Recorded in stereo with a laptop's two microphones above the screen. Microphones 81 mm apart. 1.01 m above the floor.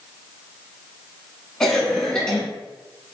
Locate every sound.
1.6 s a cough: 10° left (ahead or behind), 1.6 m